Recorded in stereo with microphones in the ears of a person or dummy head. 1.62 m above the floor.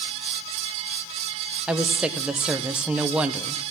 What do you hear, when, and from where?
1.7 s a woman speaking: 10° right (ahead or behind), 0.9 m